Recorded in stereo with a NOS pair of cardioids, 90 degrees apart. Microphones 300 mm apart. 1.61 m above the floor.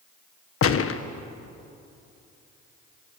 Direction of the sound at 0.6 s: 50° left.